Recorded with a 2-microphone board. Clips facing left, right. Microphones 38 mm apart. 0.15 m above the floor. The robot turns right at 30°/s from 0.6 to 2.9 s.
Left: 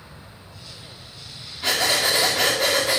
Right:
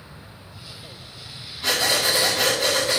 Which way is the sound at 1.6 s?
25° left.